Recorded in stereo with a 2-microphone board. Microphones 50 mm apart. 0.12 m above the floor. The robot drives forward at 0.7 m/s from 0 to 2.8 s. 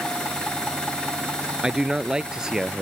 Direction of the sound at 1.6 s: 15° right (ahead or behind).